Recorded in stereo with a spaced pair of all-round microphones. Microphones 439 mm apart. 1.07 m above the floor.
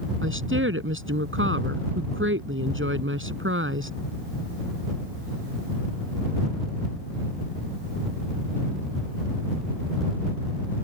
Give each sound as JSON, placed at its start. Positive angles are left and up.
{"t": 0.2, "sound": "a woman speaking", "side_deg": -25}